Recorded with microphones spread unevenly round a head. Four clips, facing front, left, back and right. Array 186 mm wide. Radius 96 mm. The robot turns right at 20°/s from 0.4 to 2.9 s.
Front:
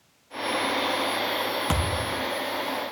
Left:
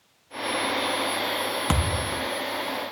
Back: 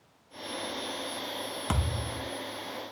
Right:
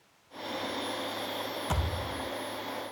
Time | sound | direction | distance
1.7 | a thud | 75° left | 1.6 m